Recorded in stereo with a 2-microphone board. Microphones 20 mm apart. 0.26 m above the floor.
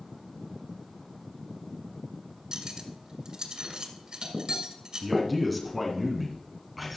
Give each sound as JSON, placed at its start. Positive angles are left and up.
{"t": 2.5, "sound": "cutlery clinking", "side_deg": -45, "distance_m": 1.9}
{"t": 5.0, "sound": "a man speaking", "side_deg": 0, "distance_m": 2.5}